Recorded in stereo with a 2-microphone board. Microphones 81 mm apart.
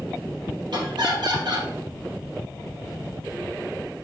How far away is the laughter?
About 3 m.